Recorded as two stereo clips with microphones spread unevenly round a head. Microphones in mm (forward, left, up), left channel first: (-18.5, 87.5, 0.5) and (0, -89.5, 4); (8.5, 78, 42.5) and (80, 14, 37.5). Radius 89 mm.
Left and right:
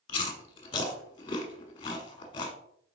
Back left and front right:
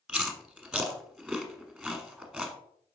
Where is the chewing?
40° left, 1.1 m.